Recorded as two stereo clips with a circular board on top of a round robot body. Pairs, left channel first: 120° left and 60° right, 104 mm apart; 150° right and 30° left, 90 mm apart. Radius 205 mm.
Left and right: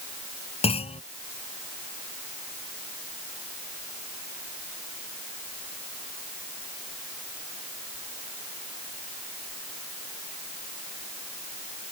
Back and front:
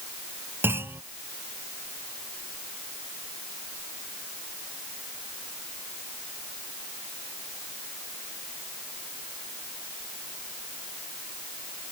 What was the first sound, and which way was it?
A clunk, 95° left.